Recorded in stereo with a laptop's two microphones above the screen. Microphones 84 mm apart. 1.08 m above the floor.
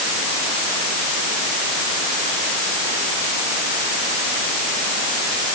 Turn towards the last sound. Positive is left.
No sound to turn to.